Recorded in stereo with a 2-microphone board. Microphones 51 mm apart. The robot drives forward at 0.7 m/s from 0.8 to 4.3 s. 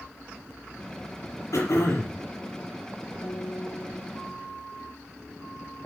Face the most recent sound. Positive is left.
turn(degrees=50)  # may be behind; listen again after turning